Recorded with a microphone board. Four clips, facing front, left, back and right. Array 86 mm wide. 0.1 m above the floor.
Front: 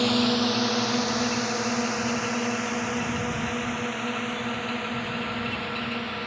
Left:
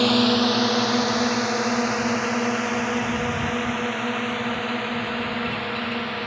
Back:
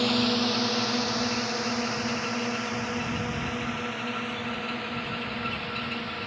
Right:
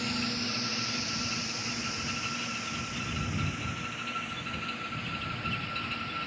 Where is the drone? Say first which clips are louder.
Left 15 dB, front 2 dB; 85° left; by 6.3 s 80° left.